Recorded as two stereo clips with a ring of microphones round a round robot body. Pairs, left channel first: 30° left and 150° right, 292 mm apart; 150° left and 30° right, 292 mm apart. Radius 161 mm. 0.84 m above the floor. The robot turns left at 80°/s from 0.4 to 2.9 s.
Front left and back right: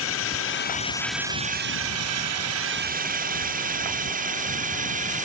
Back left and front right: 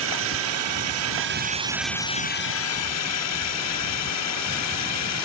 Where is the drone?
Straight ahead; by 5.2 s 150° left.